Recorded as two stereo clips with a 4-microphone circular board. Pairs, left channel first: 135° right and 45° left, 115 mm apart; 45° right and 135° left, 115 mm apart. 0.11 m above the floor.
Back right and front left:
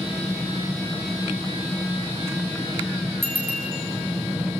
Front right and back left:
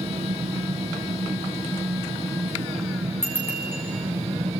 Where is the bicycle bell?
155° right, 6.5 m.